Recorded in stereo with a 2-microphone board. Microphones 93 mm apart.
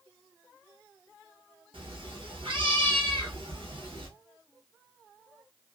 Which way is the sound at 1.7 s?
70° right (ahead or behind).